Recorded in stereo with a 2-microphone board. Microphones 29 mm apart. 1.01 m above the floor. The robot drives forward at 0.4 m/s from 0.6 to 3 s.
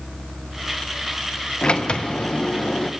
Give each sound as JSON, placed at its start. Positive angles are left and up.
{"t": 1.6, "sound": "a sliding door", "side_deg": 40, "distance_m": 0.6}